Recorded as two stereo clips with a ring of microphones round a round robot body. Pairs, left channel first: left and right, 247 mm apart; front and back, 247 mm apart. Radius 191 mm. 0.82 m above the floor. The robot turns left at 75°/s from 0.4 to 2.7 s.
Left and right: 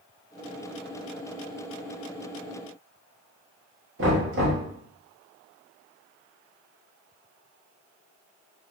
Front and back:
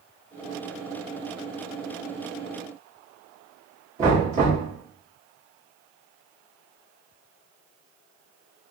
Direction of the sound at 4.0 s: 120° right.